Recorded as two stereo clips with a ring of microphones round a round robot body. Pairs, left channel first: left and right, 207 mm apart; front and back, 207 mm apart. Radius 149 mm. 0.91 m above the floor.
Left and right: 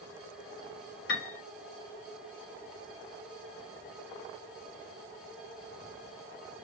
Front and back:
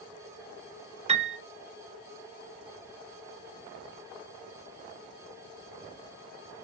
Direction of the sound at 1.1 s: 120° left.